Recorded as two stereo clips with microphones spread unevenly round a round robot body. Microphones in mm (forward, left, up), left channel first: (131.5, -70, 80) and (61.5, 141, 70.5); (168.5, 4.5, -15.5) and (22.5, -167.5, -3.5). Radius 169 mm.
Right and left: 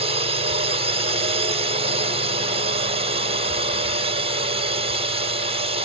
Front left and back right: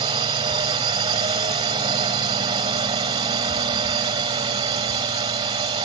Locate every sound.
0.0 s a drone: 160° left